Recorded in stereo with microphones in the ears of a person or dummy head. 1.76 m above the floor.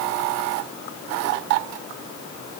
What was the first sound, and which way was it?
Only background noise.